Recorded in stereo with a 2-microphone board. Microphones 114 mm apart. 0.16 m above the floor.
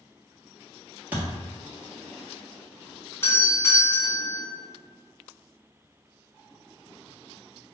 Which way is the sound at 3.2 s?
25° left (ahead or behind).